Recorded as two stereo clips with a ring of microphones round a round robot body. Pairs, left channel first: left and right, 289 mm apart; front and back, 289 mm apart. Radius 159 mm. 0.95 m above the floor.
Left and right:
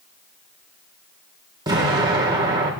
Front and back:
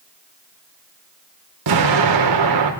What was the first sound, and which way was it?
An explosion, 170° right.